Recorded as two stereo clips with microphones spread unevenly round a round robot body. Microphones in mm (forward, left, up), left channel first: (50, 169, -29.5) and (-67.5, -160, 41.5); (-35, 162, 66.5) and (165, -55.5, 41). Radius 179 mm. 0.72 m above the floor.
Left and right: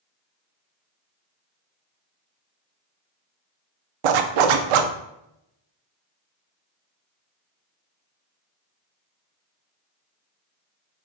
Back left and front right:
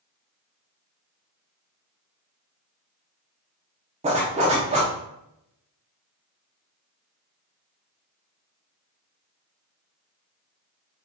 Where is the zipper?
120° right, 0.5 m.